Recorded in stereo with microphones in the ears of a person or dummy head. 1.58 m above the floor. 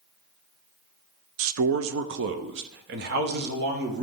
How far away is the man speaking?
About 0.5 m.